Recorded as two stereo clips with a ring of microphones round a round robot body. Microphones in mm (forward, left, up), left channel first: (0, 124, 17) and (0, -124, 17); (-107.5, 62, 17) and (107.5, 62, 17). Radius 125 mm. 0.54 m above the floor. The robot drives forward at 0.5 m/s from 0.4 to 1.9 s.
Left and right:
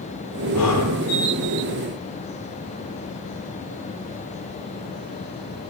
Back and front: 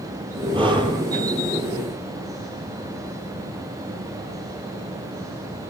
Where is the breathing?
65° left, 9 m; by 1.0 s 70° left, 9 m.